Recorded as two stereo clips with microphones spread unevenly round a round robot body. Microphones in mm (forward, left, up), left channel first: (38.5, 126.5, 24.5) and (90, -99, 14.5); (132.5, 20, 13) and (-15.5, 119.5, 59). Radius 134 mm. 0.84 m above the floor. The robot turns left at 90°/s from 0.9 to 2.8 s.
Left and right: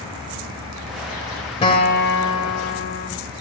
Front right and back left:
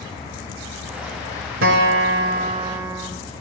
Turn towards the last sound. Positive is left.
turn(degrees=65)